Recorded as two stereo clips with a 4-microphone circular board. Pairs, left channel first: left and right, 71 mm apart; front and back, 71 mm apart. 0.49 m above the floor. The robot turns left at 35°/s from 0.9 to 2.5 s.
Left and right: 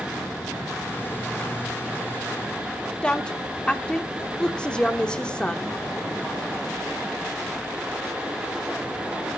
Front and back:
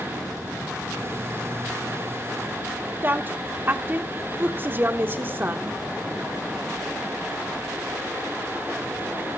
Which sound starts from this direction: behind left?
A woman speaking, at 3.0 s.